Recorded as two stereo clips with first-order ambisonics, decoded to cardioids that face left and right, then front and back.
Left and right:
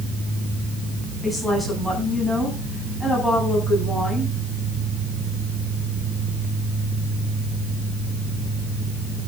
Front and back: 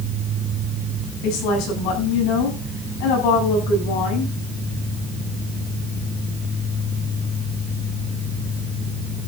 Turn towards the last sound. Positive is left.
turn(degrees=5)